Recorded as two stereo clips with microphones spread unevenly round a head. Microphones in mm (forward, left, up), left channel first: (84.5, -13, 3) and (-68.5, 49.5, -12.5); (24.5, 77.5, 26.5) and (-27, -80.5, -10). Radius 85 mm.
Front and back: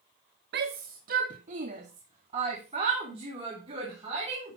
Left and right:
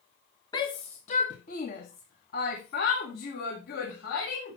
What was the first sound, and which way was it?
A shout, 135° left.